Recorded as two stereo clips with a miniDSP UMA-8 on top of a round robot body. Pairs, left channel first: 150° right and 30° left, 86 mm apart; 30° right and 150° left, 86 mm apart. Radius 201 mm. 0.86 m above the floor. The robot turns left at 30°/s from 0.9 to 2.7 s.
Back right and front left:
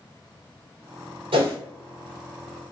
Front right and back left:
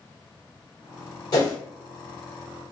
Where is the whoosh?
15° left, 1.0 m; by 1.6 s 10° left, 1.0 m.